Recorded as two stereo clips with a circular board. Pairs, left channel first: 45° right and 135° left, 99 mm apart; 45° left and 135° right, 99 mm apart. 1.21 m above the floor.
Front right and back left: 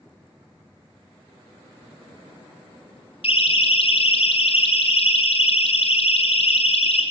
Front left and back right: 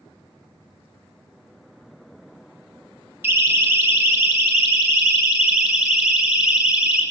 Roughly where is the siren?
Ahead right.